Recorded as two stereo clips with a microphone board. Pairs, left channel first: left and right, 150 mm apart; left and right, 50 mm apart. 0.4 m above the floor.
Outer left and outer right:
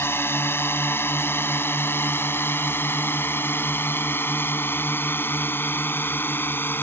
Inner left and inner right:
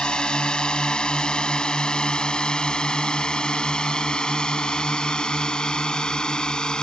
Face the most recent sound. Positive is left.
turn(degrees=15)  # may be behind; listen again after turning